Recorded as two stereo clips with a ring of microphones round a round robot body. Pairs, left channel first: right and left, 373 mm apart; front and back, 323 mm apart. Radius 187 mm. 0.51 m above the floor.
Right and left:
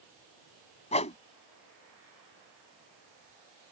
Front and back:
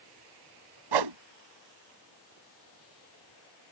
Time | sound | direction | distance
0.9 | a whoosh | 165° right | ?